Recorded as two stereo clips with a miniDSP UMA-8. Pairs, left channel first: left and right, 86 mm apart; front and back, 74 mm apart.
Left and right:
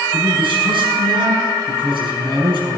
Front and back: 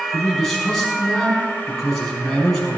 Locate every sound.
0.1 s a man speaking: 85° right, 5 m